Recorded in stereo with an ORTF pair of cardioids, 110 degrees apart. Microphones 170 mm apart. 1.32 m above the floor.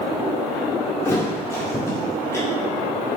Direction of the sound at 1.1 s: 15° left.